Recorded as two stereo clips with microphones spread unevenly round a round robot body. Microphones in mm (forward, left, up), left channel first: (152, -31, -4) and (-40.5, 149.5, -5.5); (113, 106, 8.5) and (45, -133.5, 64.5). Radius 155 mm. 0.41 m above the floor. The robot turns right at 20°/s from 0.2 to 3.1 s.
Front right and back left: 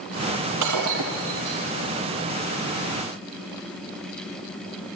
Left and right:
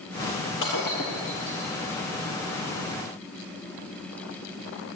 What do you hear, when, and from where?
0.6 s breaking glass: 130° left, 5 m; by 1.6 s 150° left, 5 m